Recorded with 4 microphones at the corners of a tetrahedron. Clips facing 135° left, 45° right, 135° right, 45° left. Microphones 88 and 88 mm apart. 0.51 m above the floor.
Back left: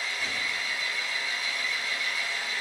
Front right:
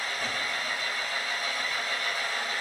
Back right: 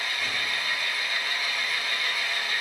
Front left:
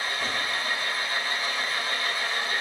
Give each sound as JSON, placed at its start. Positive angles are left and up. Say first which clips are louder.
{"t": 0.0, "sound": "an engine running", "louder": "front right 1 dB, front left 2 dB", "azimuth_deg": -10, "distance_m": 2.5}